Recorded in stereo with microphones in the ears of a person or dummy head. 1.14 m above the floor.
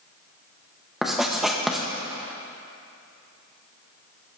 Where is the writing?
5° right (ahead or behind), 1.1 m.